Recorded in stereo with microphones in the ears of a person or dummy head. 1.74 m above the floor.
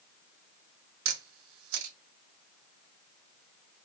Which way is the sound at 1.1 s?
85° right.